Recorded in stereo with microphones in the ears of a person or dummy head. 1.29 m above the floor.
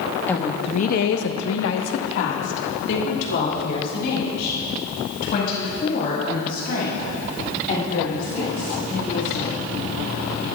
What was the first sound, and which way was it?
A woman speaking, 10° left (ahead or behind).